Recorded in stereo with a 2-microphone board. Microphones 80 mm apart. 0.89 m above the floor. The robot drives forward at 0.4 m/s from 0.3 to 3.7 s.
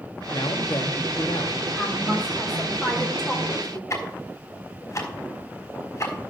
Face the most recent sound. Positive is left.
turn(degrees=40)  # may be behind; listen again after turning